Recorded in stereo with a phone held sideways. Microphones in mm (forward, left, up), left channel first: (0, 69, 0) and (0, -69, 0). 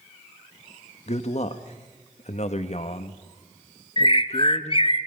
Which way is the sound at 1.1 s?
50° left (ahead or behind).